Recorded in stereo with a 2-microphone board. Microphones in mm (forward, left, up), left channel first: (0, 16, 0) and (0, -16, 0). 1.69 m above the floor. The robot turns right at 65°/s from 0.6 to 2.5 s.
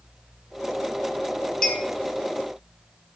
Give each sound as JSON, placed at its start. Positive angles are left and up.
{"t": 1.6, "sound": "a clink", "side_deg": 15, "distance_m": 0.6}